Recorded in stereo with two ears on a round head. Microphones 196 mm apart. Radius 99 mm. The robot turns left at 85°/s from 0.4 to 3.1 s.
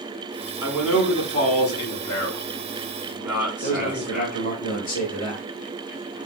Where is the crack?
No crack in this recording.